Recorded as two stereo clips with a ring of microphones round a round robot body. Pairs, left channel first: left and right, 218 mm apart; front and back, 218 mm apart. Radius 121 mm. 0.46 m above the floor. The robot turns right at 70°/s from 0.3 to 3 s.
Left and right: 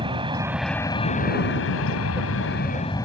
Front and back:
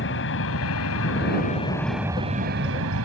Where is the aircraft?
25° right; by 3.0 s 165° left.